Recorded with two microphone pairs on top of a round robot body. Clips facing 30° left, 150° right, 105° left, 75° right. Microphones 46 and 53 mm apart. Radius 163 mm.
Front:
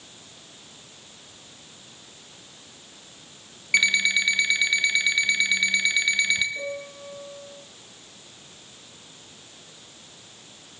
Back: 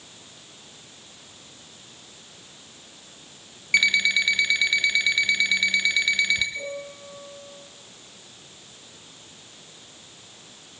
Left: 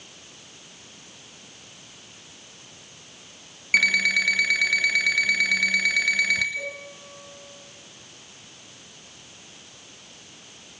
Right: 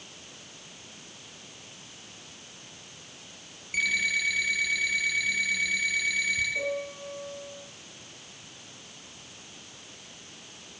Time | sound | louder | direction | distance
3.7 | an alarm clock | back 1 dB, left 7 dB | 120° left | 1.8 m
6.5 | a piano | front 1 dB, right 3 dB | 35° right | 10 m